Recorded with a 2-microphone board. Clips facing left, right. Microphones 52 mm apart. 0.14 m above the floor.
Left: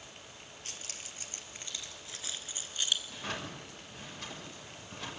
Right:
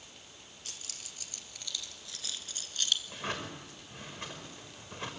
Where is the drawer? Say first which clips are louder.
Right 2 dB; 30° right (ahead or behind), 6 m.